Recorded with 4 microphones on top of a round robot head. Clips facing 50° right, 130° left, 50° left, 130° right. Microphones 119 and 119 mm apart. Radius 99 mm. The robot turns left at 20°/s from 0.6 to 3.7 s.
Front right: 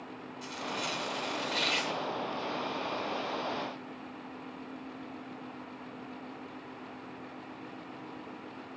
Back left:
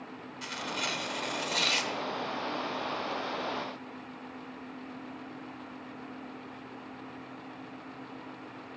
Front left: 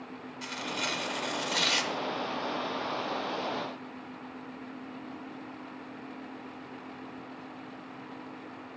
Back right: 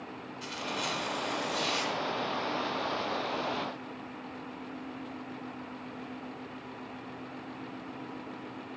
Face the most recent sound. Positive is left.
turn(degrees=30)